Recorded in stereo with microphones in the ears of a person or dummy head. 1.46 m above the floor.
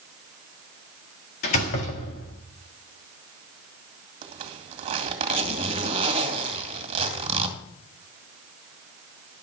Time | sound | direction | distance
1.4 | a door slam | 55° left (ahead or behind) | 1.7 m
4.2 | a zipper | 35° right (ahead or behind) | 2 m